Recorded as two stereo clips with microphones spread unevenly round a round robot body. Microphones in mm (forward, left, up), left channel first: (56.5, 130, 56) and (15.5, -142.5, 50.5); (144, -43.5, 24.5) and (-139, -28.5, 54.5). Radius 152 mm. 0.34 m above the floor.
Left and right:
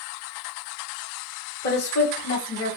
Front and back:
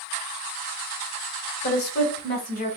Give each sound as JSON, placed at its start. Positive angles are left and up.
{"t": 1.6, "sound": "a woman speaking", "azimuth_deg": 40, "distance_m": 1.7}